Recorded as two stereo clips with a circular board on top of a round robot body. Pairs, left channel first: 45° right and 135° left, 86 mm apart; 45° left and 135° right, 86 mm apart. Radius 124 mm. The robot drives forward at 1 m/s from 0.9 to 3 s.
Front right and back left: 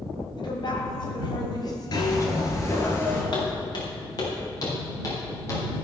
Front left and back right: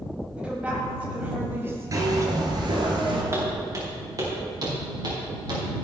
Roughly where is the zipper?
Right.